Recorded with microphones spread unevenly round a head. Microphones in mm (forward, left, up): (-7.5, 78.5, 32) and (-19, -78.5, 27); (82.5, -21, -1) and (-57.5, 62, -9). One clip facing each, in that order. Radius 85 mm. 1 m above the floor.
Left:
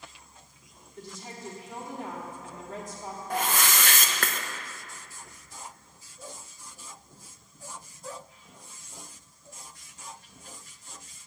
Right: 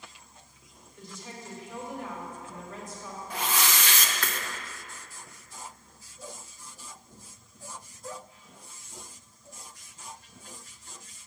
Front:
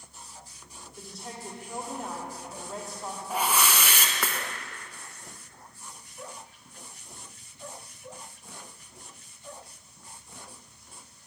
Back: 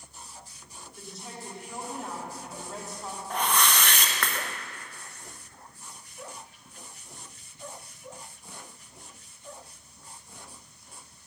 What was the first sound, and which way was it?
A woman speaking, 60° left.